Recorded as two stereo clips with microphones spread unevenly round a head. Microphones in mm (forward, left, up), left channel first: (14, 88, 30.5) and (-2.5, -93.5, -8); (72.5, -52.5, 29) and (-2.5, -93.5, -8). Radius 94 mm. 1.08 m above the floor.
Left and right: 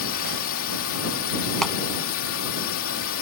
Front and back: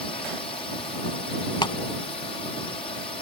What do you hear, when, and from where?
0.0 s a drone: 90° left
1.6 s a clap: straight ahead